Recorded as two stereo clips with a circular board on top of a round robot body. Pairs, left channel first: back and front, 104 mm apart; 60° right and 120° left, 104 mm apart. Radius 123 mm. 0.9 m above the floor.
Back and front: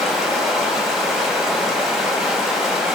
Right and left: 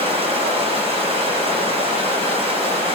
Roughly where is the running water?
Left.